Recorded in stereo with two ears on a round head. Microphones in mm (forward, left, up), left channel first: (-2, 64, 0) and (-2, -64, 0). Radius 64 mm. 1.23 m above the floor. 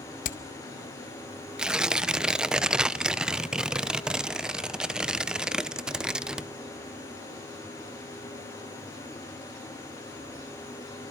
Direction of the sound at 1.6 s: 5° right (ahead or behind).